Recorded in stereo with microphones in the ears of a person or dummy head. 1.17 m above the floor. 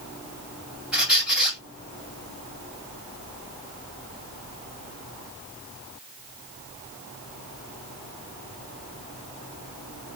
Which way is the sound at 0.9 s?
5° right (ahead or behind).